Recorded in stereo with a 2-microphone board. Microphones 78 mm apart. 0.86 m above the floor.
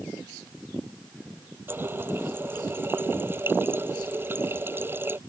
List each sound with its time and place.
1.7 s a running tap: 30° right (ahead or behind)